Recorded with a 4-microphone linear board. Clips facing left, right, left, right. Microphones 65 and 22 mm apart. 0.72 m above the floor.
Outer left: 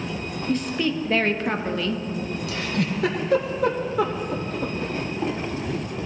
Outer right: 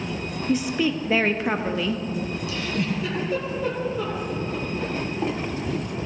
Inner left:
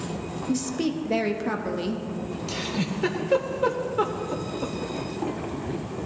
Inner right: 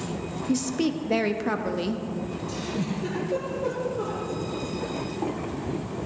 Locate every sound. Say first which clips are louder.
0.5 s a woman speaking: outer right 1 dB, inner right 1 dB; 5° right (ahead or behind), 0.7 m
2.5 s a giggle: outer left 2 dB, inner left 3 dB; 75° left (ahead or behind), 1.6 m